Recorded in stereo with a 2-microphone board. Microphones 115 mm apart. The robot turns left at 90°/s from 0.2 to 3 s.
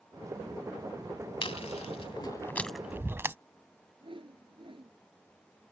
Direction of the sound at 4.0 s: 50° right (ahead or behind).